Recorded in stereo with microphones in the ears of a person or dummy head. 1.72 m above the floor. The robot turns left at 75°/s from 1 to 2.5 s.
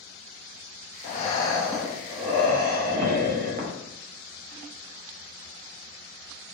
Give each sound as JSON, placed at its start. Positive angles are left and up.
{"t": 1.0, "sound": "breathing", "azimuth_deg": 55, "distance_m": 0.6}